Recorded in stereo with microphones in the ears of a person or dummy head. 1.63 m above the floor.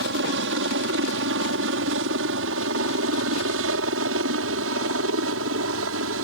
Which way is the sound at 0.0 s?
65° right (ahead or behind).